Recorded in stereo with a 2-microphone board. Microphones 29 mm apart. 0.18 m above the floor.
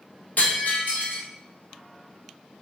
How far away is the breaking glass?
About 3.5 m.